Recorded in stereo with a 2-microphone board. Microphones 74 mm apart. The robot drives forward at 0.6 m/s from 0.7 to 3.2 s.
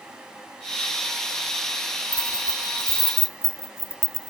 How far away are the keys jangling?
About 0.8 m.